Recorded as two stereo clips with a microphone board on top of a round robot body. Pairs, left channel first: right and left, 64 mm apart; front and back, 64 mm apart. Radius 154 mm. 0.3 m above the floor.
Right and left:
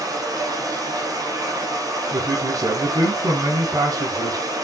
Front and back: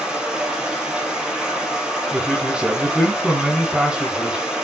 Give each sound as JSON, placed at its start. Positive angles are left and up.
{"t": 0.0, "sound": "running water", "azimuth_deg": 100, "distance_m": 4.5}
{"t": 2.1, "sound": "a man speaking", "azimuth_deg": 105, "distance_m": 3.5}